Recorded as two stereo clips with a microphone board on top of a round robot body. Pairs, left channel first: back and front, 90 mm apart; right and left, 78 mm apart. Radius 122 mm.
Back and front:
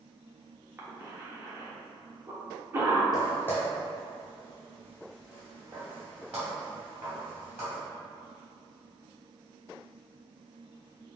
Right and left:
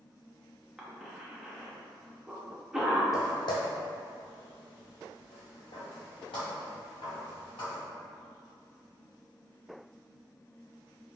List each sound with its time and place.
0.8 s a cough: 15° left, 1.2 m
3.1 s footsteps: 130° right, 0.6 m; by 7.8 s 65° right, 3 m